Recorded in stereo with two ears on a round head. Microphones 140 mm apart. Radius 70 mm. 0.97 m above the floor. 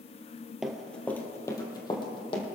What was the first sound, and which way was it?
Running footsteps, 5° right (ahead or behind).